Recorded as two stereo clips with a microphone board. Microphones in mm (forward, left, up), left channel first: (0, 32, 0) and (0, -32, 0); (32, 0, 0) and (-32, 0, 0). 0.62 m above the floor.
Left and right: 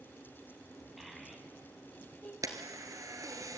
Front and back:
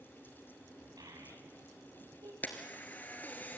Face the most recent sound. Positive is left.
turn(degrees=-65)